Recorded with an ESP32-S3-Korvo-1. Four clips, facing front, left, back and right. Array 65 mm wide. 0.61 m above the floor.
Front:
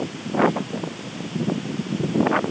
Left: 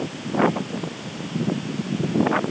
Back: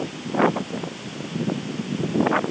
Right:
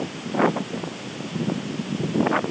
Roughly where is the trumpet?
No trumpet in this recording.